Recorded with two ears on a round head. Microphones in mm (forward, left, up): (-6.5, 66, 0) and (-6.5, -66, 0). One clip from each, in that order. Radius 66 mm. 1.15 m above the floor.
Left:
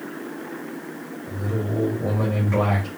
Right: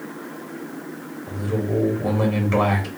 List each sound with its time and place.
1.3 s a man speaking: 40° right (ahead or behind), 2.5 m